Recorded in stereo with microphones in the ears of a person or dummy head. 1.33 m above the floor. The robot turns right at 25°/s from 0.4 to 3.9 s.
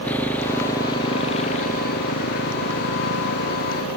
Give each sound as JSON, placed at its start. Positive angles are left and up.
{"t": 0.0, "sound": "a motorcycle", "side_deg": 10}